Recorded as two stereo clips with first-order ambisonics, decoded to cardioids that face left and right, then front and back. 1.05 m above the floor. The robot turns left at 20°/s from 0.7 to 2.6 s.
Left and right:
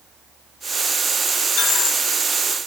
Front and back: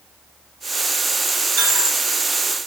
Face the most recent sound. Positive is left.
turn(degrees=120)